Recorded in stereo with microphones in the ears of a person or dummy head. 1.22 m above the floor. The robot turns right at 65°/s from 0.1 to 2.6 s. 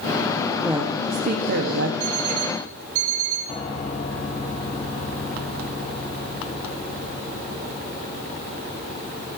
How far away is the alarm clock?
About 5 m.